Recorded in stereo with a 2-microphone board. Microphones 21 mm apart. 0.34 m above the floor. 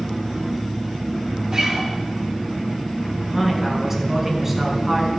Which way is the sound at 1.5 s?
40° right (ahead or behind).